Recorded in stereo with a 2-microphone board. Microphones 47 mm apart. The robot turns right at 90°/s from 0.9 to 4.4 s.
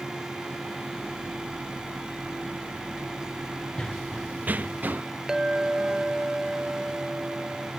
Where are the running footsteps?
20° left (ahead or behind); by 5.0 s 40° right (ahead or behind).